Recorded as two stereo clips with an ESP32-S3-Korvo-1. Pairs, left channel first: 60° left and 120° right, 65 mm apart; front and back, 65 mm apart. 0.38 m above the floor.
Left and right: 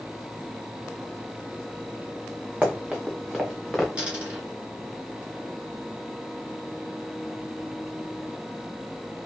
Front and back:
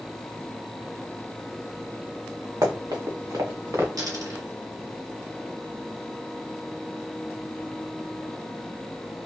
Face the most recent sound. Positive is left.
turn(degrees=170)